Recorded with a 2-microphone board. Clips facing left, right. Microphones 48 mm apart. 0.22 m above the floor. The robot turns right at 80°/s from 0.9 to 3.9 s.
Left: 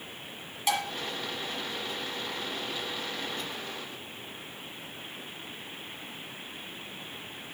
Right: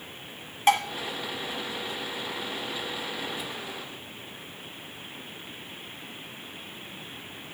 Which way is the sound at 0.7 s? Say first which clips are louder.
Right 7 dB; 45° right (ahead or behind).